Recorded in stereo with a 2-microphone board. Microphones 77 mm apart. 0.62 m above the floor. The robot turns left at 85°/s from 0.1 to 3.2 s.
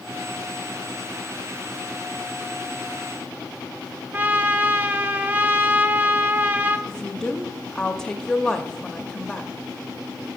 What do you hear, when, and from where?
4.1 s a trumpet: 20° right (ahead or behind), 0.7 m
6.9 s a woman speaking: 10° left (ahead or behind), 0.6 m